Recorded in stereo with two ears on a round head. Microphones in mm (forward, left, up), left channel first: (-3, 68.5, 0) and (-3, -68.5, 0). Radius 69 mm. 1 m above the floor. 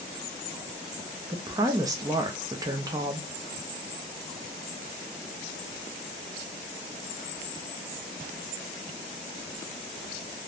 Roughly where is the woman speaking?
Right.